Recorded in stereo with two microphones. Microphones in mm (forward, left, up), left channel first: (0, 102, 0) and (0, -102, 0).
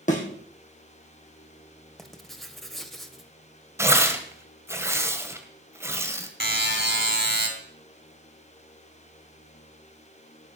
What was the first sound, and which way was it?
A thud, 40° left (ahead or behind).